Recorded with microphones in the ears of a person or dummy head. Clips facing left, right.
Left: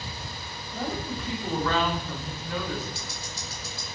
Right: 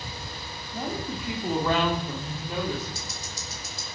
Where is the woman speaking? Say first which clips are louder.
Even; 5° right (ahead or behind), 3.5 m; by 2.9 s 25° right (ahead or behind), 4 m.